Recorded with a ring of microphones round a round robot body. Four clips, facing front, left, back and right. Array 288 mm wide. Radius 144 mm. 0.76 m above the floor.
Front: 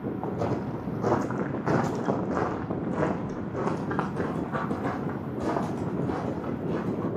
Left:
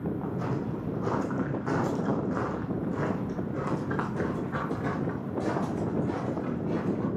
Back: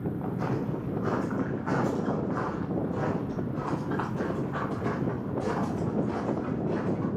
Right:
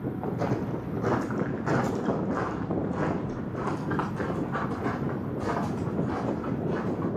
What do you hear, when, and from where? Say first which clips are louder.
0.2 s footsteps: right 2 dB, front 3 dB; 35° right, 1.7 m; by 7.1 s 35° left, 4 m